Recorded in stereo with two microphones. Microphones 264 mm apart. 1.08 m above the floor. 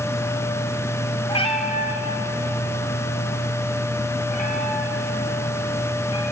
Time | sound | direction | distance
1.3 | a cat meowing | 20° left (ahead or behind) | 2 m